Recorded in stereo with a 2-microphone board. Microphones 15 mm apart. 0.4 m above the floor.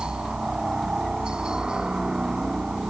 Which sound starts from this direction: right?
A helicopter, at 0.0 s.